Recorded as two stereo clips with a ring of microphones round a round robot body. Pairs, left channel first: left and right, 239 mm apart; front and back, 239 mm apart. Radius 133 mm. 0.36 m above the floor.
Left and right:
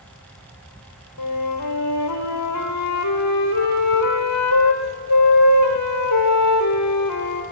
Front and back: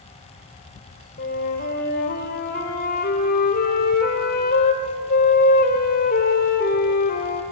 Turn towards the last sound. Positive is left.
turn(degrees=60)